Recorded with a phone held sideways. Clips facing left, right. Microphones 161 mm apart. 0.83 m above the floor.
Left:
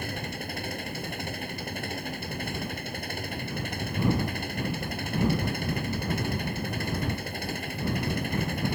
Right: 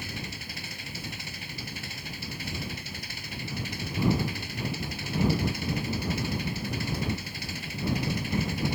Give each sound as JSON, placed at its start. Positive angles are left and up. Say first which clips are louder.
{"t": 0.0, "sound": "an engine running", "louder": "left 5 dB", "side_deg": 55}